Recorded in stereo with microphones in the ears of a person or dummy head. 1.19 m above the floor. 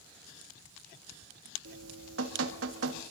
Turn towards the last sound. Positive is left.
turn(degrees=-85)